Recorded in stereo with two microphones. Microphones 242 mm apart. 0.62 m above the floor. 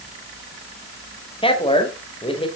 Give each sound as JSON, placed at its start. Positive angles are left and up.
{"t": 1.4, "sound": "a man speaking", "side_deg": 20, "distance_m": 3.0}